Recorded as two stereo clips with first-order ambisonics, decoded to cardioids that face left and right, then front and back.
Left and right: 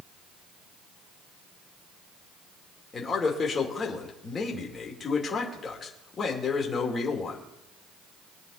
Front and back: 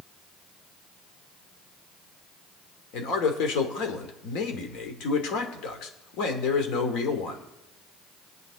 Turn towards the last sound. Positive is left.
turn(degrees=25)